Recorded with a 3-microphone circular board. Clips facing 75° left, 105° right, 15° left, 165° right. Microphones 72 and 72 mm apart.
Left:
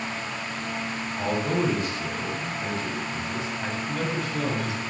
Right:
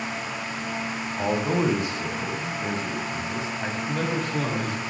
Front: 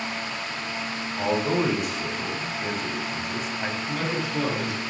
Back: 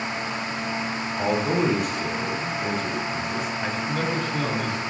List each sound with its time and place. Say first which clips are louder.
1.2 s a man speaking: right 2 dB, back 1 dB; 70° right, 1.1 m
3.9 s a man speaking: right 3 dB, back 2 dB; 65° right, 3 m